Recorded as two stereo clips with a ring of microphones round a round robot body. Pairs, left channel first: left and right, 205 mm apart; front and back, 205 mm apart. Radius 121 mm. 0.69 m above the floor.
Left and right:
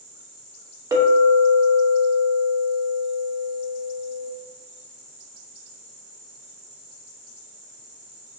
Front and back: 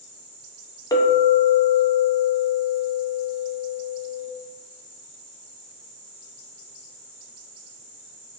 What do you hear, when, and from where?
0.9 s a clink: 50° right, 0.5 m